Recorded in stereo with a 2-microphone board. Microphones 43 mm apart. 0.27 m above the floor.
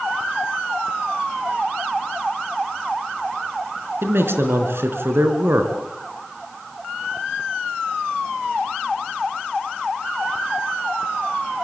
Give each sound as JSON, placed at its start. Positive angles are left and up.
{"t": 4.0, "sound": "a man speaking", "side_deg": -65, "distance_m": 3.5}